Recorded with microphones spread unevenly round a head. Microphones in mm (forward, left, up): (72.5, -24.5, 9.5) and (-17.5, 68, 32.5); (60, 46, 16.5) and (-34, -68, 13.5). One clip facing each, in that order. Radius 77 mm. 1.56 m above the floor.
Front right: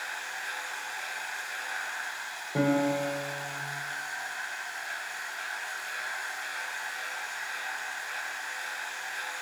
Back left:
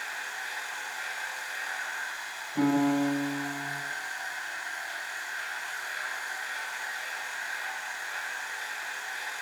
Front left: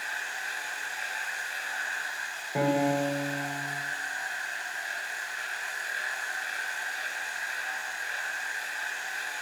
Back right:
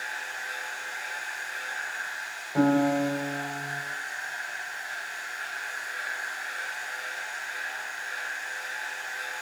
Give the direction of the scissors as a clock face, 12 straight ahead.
No scissors in this recording.